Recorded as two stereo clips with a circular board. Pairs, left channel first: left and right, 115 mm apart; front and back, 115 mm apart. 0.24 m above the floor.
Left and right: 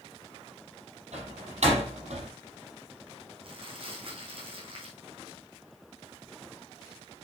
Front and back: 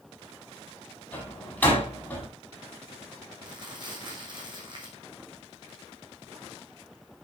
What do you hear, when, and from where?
1.1 s a door slam: 75° right, 6 m
3.4 s crumpling: 130° right, 3.5 m